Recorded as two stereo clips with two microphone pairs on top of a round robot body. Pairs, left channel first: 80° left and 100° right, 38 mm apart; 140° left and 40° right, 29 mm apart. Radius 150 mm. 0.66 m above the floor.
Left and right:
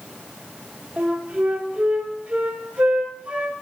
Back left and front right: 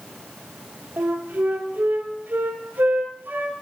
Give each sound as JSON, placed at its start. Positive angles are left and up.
{"t": 1.0, "sound": "a flute", "azimuth_deg": -45, "distance_m": 0.9}